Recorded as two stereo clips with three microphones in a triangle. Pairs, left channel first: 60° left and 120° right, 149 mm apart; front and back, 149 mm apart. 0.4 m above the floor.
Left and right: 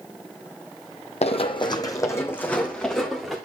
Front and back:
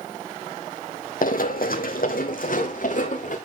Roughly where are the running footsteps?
Ahead.